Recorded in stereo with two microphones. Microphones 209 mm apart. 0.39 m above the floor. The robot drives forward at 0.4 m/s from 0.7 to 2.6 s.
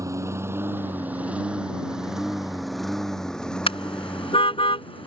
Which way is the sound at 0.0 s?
15° right (ahead or behind).